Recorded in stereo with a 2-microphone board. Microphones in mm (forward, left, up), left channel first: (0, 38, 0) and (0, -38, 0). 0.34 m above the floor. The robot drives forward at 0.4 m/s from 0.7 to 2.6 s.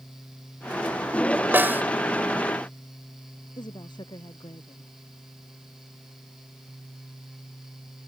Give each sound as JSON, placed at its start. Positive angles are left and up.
{"t": 1.5, "sound": "a snare drum", "side_deg": -30}
{"t": 3.6, "sound": "a woman speaking", "side_deg": 75}